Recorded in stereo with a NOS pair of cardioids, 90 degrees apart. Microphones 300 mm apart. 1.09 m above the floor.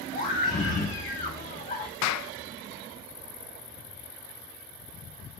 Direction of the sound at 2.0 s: 65° left.